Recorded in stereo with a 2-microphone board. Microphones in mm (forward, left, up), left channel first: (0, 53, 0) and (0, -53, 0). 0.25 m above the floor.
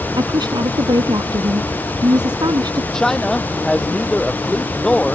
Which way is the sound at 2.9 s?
5° left (ahead or behind).